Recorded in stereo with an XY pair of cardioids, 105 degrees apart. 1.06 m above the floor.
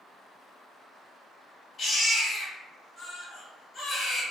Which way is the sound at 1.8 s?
50° left.